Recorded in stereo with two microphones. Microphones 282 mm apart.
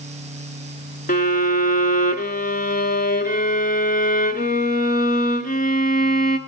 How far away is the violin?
About 0.8 m.